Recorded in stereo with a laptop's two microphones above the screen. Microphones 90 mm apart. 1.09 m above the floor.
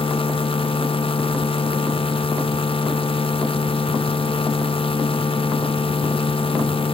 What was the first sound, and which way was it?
A machine running, 85° left.